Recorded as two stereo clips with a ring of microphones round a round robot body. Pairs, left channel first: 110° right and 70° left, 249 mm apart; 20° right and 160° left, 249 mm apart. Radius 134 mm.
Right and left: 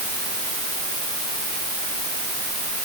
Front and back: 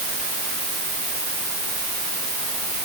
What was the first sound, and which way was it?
Only background noise.